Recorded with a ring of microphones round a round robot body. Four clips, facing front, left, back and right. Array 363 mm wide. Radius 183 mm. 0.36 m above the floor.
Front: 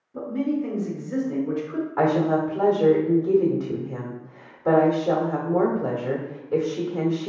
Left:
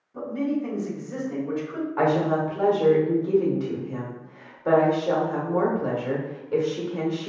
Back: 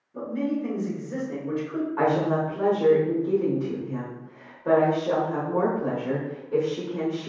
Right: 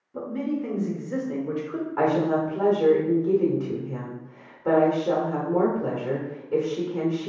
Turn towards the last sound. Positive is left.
turn(degrees=-40)